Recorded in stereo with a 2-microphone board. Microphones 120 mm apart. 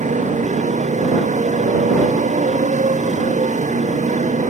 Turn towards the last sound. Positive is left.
turn(degrees=-85)